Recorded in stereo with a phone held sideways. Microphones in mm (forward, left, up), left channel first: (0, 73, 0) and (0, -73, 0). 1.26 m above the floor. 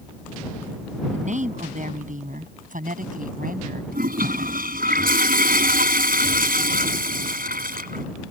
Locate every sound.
1.1 s a woman speaking: 55° right (ahead or behind); by 3.8 s 75° right (ahead or behind)
3.9 s a toilet flushing: 80° right